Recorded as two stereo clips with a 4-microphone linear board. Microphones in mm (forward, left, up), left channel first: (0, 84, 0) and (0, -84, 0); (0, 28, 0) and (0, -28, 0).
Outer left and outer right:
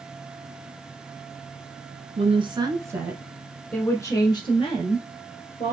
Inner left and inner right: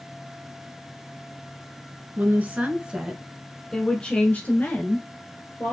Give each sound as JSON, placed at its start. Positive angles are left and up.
{"t": 2.2, "sound": "a woman speaking", "side_deg": -35, "distance_m": 1.3}